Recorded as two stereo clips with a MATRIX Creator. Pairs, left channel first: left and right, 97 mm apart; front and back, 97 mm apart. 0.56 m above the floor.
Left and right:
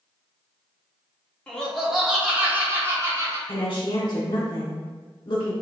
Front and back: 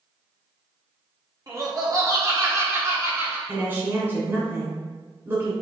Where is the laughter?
165° left, 1.3 m; by 3.4 s 125° right, 1.4 m.